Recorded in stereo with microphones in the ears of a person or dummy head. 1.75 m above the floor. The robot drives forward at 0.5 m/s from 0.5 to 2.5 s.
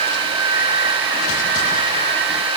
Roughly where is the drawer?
I don't hear a drawer.